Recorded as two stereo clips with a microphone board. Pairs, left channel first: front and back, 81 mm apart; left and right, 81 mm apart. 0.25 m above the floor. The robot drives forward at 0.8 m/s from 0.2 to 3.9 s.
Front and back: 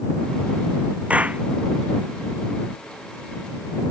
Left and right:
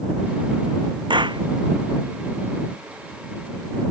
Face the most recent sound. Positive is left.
turn(degrees=-110)